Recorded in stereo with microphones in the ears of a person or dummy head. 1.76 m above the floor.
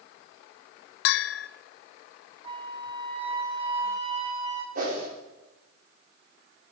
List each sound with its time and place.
1.1 s a bell: 65° left (ahead or behind), 0.6 m
2.4 s a flute: 35° right (ahead or behind), 3 m
4.8 s a whoosh: 50° right (ahead or behind), 3.5 m